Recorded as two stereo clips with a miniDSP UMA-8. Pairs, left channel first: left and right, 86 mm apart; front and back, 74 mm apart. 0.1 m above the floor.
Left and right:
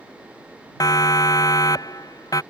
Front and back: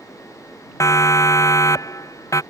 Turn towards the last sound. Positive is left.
turn(degrees=45)